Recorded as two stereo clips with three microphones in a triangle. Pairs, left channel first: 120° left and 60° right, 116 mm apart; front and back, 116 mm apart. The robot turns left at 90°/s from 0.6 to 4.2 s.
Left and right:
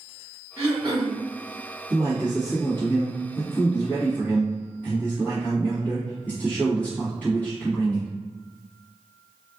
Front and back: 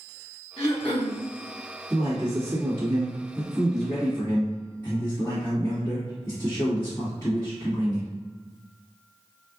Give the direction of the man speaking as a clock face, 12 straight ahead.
3 o'clock.